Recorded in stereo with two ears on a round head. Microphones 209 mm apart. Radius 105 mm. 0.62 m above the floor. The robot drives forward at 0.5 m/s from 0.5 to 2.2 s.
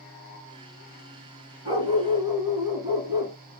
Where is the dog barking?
25° right (ahead or behind), 1.4 m; by 3.4 s 20° right (ahead or behind), 1.6 m.